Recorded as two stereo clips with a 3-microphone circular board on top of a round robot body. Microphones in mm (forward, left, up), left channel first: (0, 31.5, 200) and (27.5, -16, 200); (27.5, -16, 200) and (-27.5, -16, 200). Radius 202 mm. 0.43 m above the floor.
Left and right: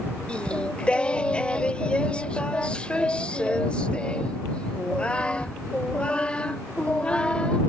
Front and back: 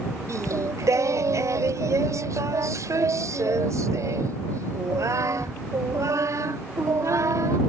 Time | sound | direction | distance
0.3 | singing | 170° right | ?